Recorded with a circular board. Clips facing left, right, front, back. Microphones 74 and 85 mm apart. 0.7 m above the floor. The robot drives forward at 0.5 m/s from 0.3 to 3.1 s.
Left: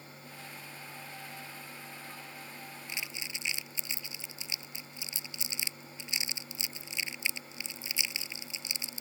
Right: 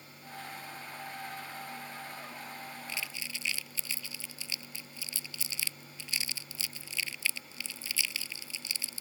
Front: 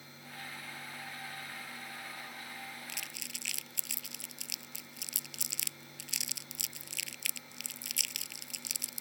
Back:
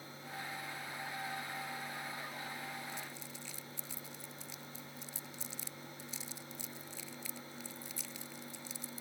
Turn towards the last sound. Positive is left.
turn(degrees=20)